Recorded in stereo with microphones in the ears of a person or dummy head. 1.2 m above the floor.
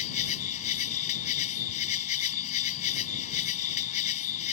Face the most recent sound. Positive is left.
turn(degrees=40)  # may be behind; listen again after turning